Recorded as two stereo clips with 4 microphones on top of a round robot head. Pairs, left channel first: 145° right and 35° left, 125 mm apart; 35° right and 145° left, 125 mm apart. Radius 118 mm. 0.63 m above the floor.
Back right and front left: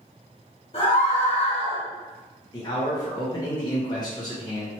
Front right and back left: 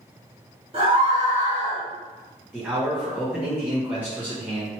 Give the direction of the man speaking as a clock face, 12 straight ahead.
5 o'clock.